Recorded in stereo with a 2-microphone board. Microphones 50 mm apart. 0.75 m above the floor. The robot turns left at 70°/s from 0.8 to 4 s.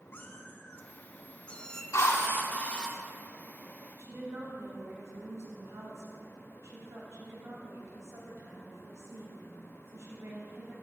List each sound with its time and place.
0.1 s a cat meowing: 85° left, 0.8 m; by 1.8 s 15° left, 0.8 m
1.9 s a drill: 80° left, 1.2 m; by 2.9 s 10° left, 1.2 m
4.0 s a woman speaking: 65° right (ahead or behind), 3.5 m